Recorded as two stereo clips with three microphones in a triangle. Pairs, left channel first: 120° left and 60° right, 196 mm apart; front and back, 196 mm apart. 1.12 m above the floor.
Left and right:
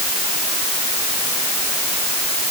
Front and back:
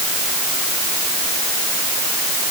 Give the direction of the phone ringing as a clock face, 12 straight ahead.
I don't hear a phone ringing.